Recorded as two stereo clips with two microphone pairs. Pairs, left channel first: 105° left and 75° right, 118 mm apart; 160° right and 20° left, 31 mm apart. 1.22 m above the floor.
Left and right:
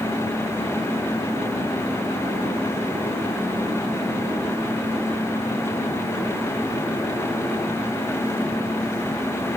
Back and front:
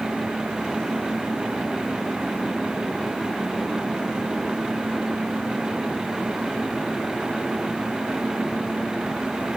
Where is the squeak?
I don't hear a squeak.